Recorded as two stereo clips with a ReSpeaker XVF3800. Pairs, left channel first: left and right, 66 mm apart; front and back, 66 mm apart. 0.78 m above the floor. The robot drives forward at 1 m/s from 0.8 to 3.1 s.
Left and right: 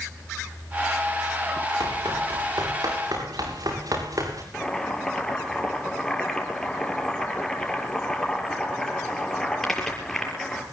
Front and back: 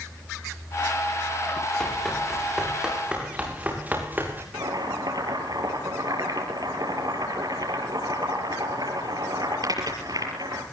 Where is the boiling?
175° left, 6.5 m.